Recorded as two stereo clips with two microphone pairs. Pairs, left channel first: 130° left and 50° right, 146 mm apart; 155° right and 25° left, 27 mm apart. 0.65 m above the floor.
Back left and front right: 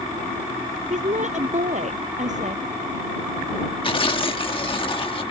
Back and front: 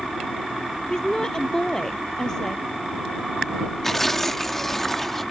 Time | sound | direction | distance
0.9 | a woman speaking | 85° right | ?
3.8 | tearing paper | 135° left | ?